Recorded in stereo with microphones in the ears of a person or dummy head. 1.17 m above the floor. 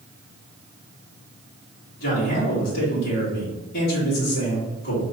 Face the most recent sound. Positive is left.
turn(degrees=55)  # may be behind; listen again after turning